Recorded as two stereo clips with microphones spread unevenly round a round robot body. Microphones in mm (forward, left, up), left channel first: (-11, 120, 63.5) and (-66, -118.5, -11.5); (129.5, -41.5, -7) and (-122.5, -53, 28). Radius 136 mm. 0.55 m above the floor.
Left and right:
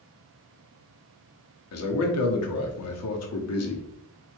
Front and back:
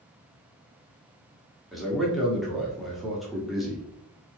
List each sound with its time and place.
1.7 s a man speaking: 85° left, 1.0 m